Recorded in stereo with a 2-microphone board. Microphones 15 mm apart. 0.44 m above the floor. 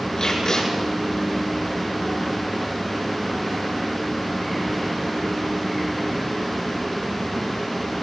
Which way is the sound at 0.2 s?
35° left (ahead or behind).